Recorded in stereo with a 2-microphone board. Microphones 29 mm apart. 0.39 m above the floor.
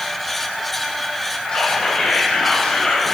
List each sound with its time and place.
1.5 s whispering: 40° left (ahead or behind), 2 m